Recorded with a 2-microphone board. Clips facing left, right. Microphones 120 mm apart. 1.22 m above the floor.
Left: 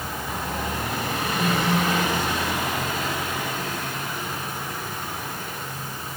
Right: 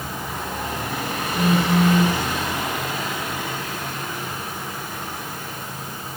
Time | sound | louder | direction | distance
1.4 | a phone buzzing | right 5 dB | 40° right (ahead or behind) | 1.9 m